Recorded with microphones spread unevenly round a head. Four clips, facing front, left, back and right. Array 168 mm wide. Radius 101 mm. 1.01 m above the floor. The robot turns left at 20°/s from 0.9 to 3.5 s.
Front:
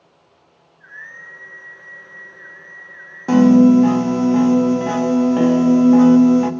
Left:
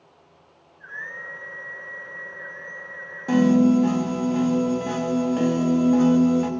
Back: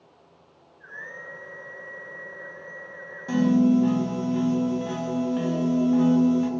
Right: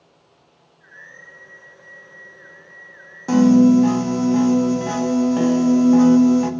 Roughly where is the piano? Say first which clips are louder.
Right 5 dB, front 10 dB; ahead.